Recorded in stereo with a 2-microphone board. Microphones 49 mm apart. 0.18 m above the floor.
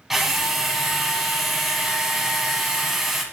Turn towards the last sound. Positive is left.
turn(degrees=-5)  # may be behind; listen again after turning